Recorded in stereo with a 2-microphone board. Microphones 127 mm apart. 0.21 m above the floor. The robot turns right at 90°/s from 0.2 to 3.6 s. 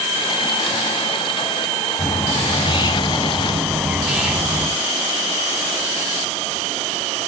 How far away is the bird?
About 1.3 m.